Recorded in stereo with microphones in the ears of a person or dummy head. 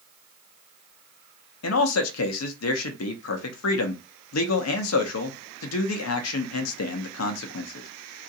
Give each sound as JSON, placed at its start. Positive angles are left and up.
{"t": 1.6, "sound": "a man speaking", "side_deg": 85, "distance_m": 0.7}